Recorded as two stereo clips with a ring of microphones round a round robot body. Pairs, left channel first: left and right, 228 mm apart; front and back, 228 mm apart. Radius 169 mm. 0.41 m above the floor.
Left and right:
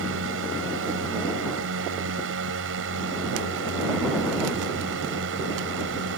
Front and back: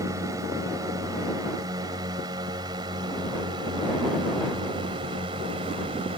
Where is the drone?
105° right; by 6.2 s 110° right.